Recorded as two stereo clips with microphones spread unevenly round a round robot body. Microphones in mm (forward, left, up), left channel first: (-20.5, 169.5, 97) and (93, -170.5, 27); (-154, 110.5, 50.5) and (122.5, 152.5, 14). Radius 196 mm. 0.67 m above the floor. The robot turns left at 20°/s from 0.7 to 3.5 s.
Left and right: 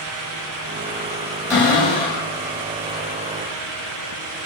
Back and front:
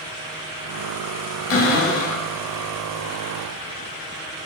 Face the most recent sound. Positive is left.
turn(degrees=155)